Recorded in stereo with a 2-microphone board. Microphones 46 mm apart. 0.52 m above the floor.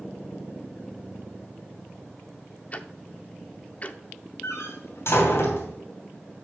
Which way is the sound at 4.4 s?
75° left (ahead or behind).